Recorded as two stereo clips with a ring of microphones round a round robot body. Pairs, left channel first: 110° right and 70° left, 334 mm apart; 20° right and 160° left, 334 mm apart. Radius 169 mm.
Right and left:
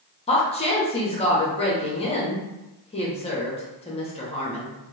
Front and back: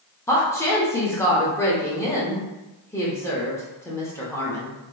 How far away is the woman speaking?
About 0.7 m.